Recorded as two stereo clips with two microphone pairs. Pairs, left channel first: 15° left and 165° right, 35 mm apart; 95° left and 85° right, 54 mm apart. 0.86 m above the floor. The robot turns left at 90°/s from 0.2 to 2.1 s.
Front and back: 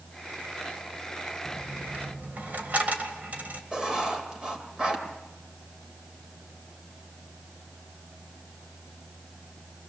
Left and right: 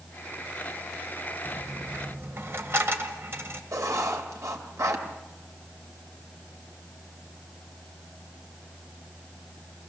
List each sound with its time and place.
1.4 s a dropped coin: 65° right, 1.8 m; by 3.6 s 125° right, 1.8 m
3.7 s writing: 100° right, 2.5 m